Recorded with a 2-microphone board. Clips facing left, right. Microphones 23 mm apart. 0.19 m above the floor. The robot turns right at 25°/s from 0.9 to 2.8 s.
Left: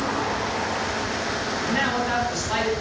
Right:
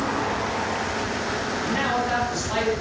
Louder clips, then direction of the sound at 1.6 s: Left 1 dB; centre (ahead or behind).